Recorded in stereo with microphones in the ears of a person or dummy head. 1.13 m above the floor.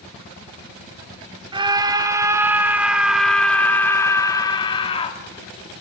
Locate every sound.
1.5 s a scream: 25° right (ahead or behind), 2 m; by 5.2 s 35° left (ahead or behind), 1.9 m